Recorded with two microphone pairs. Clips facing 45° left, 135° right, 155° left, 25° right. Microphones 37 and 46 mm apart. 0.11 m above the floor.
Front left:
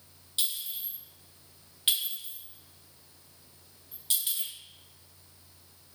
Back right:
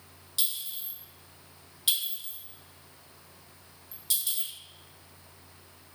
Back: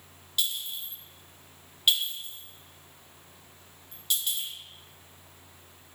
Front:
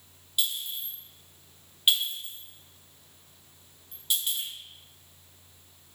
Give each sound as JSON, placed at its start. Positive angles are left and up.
{"t": 0.4, "sound": "a clink", "azimuth_deg": 35, "distance_m": 1.2}